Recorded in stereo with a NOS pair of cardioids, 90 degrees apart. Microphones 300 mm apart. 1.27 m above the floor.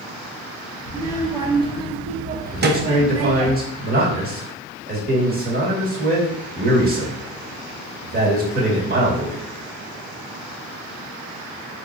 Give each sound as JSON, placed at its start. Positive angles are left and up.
{"t": 0.8, "sound": "a child speaking", "azimuth_deg": -10, "distance_m": 1.6}
{"t": 2.5, "sound": "a man speaking", "azimuth_deg": -30, "distance_m": 1.8}